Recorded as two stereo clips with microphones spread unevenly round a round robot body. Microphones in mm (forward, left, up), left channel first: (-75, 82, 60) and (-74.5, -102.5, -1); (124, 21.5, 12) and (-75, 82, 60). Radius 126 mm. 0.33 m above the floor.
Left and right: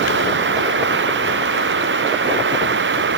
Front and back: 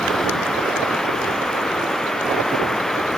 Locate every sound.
0.0 s running water: 105° right